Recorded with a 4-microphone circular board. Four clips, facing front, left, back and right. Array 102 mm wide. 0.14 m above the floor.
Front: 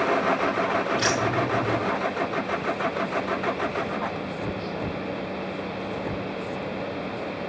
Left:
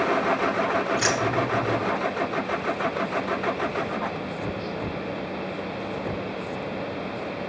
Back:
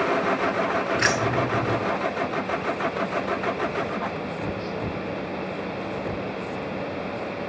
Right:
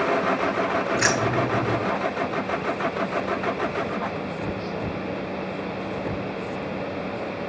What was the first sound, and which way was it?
Keys jangling, 145° right.